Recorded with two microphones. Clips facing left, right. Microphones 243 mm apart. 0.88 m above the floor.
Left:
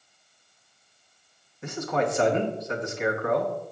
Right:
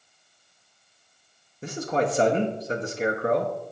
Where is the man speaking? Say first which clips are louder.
Right 1 dB; 35° right (ahead or behind), 1.4 m.